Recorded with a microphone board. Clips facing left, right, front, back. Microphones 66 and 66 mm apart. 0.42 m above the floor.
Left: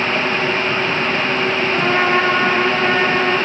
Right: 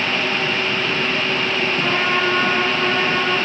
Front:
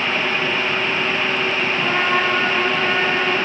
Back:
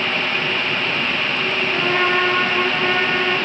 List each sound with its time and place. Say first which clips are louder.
1.7 s a trumpet: left 5 dB, back 2 dB; 125° left, 2.5 m